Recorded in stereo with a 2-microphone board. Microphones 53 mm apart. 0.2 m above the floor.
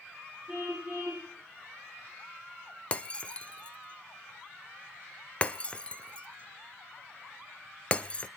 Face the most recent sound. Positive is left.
turn(degrees=25)  # may be behind; listen again after turning